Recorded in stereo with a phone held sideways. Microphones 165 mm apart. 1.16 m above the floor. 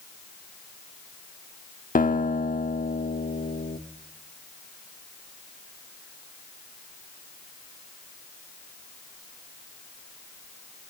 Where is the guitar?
55° left (ahead or behind), 1.1 m.